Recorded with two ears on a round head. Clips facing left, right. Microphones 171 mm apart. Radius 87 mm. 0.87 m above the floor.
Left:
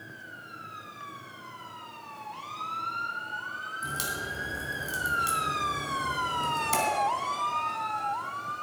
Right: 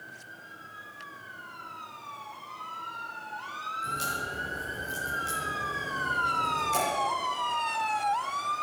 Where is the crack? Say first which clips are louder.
Even; 75° left (ahead or behind), 3.5 m.